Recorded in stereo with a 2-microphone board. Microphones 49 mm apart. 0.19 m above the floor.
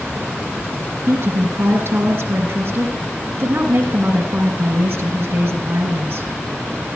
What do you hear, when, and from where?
1.1 s a woman speaking: 40° right (ahead or behind), 2 m